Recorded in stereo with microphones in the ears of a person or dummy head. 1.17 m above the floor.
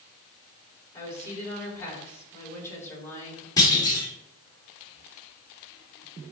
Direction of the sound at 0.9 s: 15° left (ahead or behind).